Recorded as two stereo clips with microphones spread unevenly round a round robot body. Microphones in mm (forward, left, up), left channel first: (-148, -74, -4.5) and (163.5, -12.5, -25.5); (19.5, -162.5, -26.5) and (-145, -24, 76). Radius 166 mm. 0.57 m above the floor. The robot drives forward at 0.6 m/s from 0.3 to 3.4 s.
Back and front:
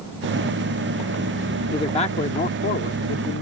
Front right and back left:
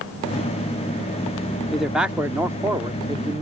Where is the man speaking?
90° right; by 3.4 s 135° right.